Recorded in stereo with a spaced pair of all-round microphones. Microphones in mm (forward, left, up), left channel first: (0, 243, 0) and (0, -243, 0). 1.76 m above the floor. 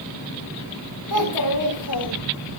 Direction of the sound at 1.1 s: 55° left (ahead or behind).